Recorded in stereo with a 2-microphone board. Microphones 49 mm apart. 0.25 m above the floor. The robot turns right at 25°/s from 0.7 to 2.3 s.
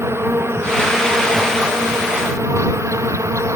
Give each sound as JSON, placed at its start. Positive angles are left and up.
{"t": 0.0, "sound": "an insect", "azimuth_deg": -120}